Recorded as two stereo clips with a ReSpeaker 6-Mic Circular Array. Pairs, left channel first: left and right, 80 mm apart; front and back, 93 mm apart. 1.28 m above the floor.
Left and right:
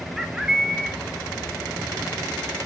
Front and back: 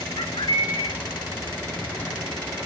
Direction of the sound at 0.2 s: 5° right.